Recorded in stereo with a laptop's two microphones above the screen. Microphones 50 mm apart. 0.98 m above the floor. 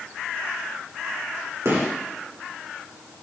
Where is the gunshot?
70° right (ahead or behind), 1.5 m.